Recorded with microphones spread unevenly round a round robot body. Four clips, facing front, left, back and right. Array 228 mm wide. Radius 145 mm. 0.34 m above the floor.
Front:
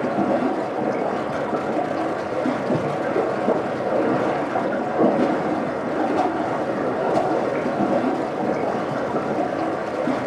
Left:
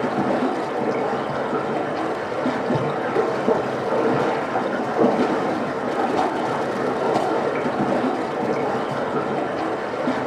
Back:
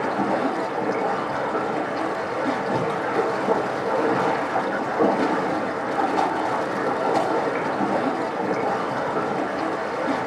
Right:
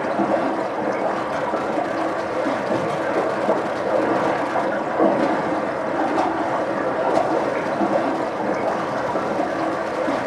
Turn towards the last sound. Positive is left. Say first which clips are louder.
# right 1 dB, front 2 dB
turn(degrees=40)